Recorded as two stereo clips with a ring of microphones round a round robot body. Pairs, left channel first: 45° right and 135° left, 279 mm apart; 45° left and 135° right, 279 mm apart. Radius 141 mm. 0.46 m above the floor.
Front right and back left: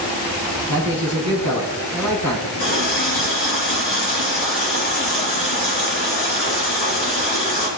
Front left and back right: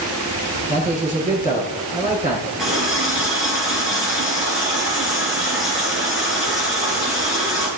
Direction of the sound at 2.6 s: 45° right.